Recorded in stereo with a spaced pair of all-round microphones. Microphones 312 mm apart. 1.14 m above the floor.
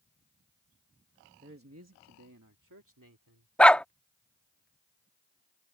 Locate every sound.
1.4 s a man speaking: 35° right (ahead or behind); by 3.5 s 85° right
3.6 s a dog barking: 5° left (ahead or behind)